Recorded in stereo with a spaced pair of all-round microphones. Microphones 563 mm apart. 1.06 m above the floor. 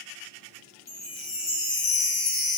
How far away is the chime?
About 1.1 m.